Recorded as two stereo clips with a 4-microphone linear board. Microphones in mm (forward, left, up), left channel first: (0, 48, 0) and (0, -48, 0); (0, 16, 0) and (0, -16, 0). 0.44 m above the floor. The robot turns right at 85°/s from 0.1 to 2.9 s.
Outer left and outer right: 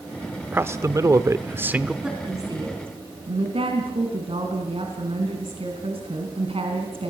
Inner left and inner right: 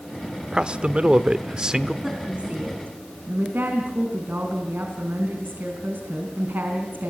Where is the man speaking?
135° right, 1.0 m; by 1.9 s 15° right, 1.0 m.